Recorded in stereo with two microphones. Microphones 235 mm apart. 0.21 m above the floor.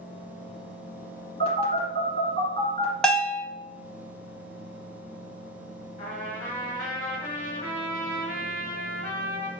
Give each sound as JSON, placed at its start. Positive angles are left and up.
{"t": 1.4, "sound": "a phone buzzing", "side_deg": 25, "distance_m": 1.8}
{"t": 3.0, "sound": "a bell", "side_deg": 5, "distance_m": 0.6}
{"t": 6.0, "sound": "a trumpet", "side_deg": 35, "distance_m": 1.8}